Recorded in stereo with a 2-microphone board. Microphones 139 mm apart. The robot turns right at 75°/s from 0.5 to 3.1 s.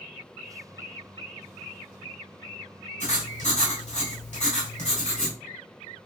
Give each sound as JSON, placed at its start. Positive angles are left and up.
{"t": 3.0, "sound": "writing", "side_deg": 60, "distance_m": 1.7}